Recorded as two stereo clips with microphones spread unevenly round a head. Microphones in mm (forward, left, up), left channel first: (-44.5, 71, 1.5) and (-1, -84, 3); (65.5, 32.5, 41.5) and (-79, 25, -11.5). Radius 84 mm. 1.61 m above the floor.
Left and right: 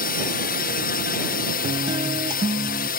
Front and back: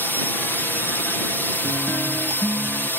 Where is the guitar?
40° right.